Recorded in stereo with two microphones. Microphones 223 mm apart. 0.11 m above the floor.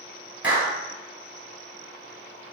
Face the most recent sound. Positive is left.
turn(degrees=-5)  # may be behind; listen again after turning